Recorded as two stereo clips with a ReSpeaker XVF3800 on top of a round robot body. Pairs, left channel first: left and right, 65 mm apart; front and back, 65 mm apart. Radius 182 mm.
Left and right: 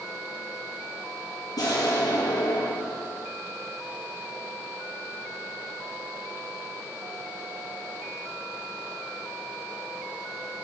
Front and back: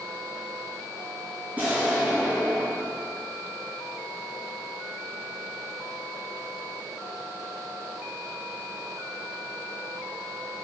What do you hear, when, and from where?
1.6 s an explosion: 110° left, 1.8 m